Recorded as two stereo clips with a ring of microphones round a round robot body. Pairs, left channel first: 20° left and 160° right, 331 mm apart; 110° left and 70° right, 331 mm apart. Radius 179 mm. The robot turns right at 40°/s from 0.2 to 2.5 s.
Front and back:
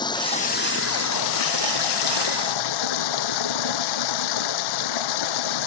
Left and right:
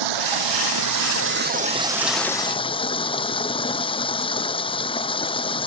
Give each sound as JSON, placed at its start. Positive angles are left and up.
{"t": 0.0, "sound": "running water", "azimuth_deg": -55}